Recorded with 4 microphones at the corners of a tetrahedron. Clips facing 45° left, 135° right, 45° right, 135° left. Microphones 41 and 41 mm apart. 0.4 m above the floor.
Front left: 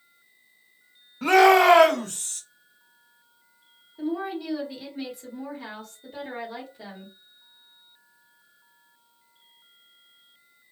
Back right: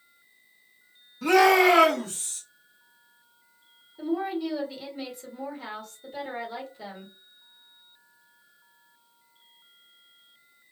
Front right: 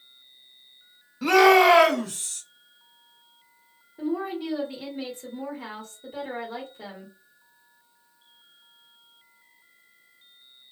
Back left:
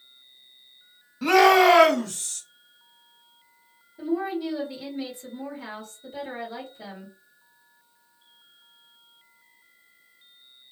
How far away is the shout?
About 1.0 m.